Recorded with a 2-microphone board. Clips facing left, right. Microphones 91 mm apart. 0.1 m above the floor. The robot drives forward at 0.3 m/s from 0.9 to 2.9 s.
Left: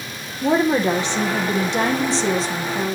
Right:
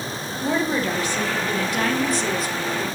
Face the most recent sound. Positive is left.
turn(degrees=30)  # may be behind; listen again after turning